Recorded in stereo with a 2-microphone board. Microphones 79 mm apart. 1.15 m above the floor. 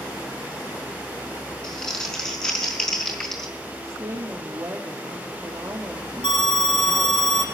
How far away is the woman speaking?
About 1.8 m.